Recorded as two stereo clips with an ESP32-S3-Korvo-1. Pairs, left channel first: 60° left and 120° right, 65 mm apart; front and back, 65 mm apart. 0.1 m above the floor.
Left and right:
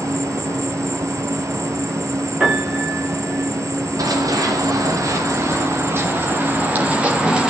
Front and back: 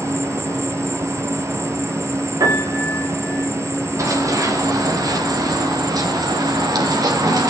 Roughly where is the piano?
Behind.